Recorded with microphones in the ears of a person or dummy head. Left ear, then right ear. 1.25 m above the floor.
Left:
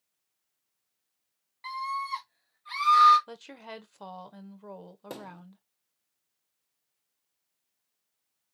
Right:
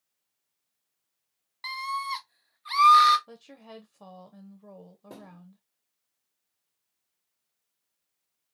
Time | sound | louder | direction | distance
1.6 | a scream | right 1 dB | 35° right (ahead or behind) | 1.3 m
3.3 | a woman speaking | left 4 dB | 45° left (ahead or behind) | 0.8 m
5.1 | a thud | left 6 dB | 40° left (ahead or behind) | 0.9 m